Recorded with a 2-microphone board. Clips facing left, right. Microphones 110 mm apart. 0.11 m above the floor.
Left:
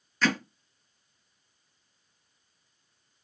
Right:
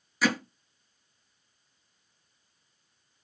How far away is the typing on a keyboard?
I don't hear typing on a keyboard.